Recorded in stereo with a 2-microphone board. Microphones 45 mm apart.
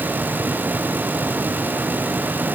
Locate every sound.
Only background noise.